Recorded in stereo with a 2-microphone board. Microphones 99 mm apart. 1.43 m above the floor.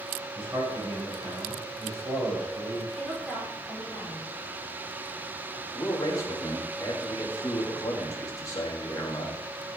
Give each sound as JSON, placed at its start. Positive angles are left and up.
{"t": 0.3, "sound": "a man speaking", "side_deg": -25, "distance_m": 6.0}
{"t": 3.0, "sound": "a woman speaking", "side_deg": -5, "distance_m": 5.0}
{"t": 5.8, "sound": "a man speaking", "side_deg": 30, "distance_m": 2.5}